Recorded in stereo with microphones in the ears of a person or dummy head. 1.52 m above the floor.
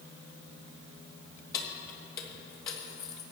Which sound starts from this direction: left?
Keys jangling, at 1.5 s.